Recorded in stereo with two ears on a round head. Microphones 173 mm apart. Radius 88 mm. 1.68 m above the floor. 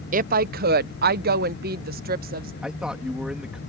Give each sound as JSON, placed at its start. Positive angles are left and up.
{"t": 0.1, "sound": "a woman speaking", "side_deg": -40}
{"t": 2.6, "sound": "a man speaking", "side_deg": -5}